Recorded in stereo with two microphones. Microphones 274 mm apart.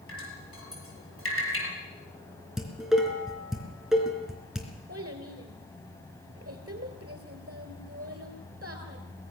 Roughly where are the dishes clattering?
Centre.